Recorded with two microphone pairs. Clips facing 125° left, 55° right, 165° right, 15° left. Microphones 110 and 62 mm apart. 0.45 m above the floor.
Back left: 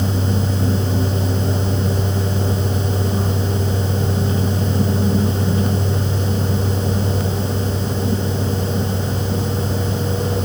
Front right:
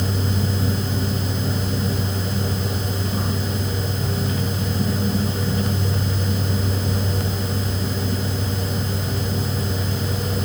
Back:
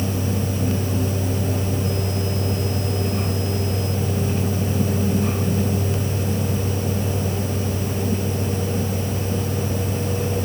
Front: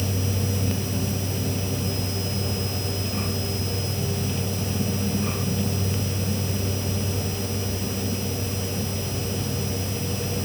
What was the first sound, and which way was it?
Only background noise.